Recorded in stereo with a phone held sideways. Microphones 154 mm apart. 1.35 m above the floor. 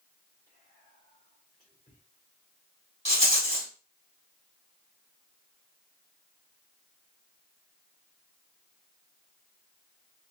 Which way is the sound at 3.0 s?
45° left (ahead or behind).